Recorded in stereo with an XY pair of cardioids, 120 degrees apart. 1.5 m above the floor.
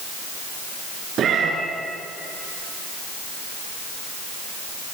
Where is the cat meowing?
50° right, 5 m.